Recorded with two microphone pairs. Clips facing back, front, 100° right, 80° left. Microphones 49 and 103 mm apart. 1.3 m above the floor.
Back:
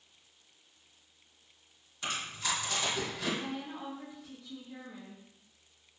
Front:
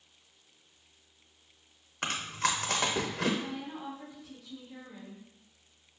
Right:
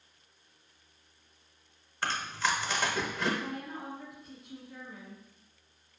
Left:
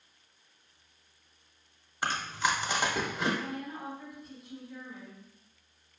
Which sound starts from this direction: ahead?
Chewing, at 2.0 s.